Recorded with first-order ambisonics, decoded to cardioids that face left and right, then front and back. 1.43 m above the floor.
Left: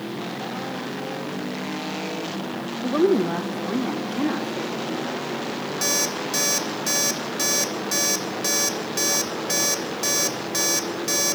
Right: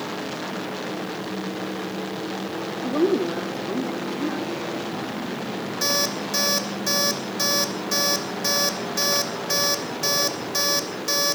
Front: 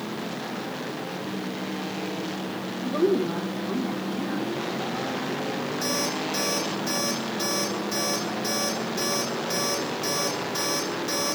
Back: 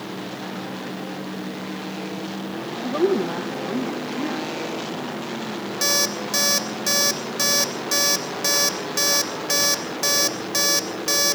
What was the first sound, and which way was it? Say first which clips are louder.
A woman speaking: left 2 dB, back 2 dB; 110° left.